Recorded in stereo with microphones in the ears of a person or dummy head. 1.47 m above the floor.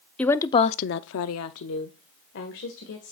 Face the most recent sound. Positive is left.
turn(degrees=50)  # may be behind; listen again after turning